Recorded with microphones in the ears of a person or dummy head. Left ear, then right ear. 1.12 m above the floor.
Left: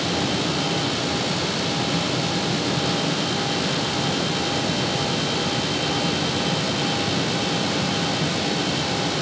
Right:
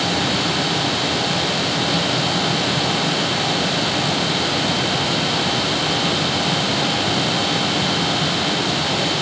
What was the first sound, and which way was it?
Only background noise.